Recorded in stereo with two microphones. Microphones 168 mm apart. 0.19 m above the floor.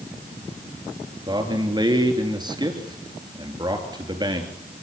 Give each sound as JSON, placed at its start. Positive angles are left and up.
{"t": 1.3, "sound": "a man speaking", "side_deg": -25, "distance_m": 3.5}